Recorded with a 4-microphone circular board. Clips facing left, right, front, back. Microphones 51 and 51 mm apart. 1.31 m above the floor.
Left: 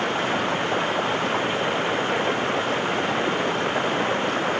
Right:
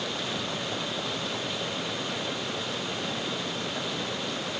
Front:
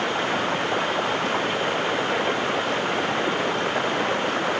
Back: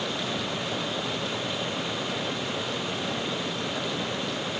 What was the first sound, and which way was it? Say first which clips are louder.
Running water: left 9 dB, front 7 dB; 45° left.